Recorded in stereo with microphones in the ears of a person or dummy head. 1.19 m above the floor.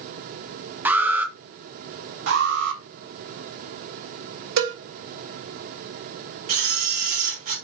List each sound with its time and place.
0.8 s an alarm: 15° right (ahead or behind), 0.7 m
2.3 s an alarm: 75° right (ahead or behind), 3 m
4.6 s a cowbell: 85° right, 4.5 m
6.5 s a camera shutter: 50° right (ahead or behind), 2.5 m